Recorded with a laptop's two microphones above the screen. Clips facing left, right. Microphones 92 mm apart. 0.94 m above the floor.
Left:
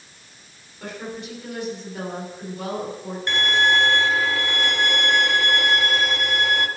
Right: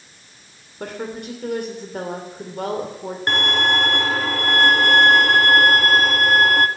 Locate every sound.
0.8 s a woman speaking: 55° right (ahead or behind), 3 m
3.3 s a violin: 50° right (ahead or behind), 1.1 m